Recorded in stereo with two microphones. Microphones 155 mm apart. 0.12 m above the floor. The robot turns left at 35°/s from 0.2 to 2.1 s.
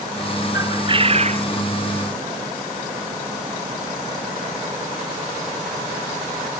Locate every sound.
0.5 s a bird: 20° right; by 1.5 s 50° right